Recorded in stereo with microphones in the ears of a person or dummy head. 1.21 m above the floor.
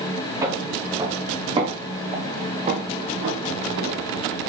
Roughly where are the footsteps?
Centre.